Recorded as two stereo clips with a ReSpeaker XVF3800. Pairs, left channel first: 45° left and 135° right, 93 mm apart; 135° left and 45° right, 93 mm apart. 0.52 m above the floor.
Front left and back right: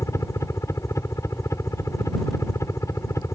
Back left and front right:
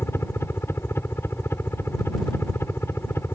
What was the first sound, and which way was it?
A helicopter, 85° left.